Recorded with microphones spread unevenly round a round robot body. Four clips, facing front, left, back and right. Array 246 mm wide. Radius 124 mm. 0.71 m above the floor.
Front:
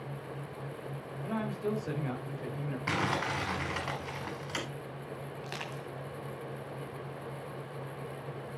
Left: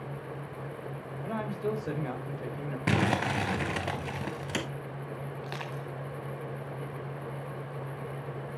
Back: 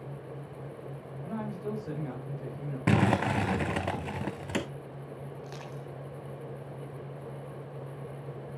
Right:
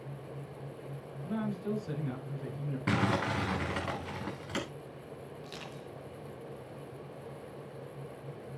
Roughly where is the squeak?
I don't hear a squeak.